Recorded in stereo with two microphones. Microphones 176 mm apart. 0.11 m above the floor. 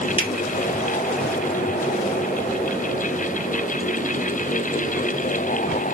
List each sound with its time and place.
0.2 s a finger snap: 30° left (ahead or behind), 1.6 m